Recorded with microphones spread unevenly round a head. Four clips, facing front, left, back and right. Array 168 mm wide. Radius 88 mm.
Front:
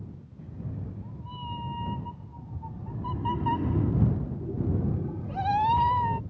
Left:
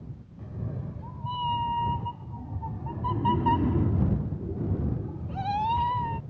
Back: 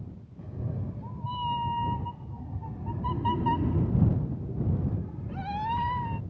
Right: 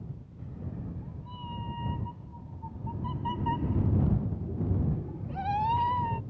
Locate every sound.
0.4 s a cat meowing: 135° left; by 6.2 s straight ahead